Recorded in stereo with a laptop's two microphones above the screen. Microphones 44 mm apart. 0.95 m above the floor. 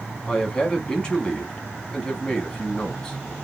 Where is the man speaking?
20° left (ahead or behind), 1.6 m.